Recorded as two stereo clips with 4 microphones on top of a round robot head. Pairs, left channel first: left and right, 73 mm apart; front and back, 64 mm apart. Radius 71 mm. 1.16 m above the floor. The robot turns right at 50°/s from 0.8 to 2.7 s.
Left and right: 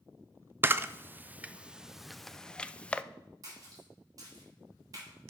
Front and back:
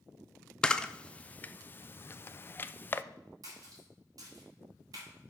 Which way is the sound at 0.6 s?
70° right.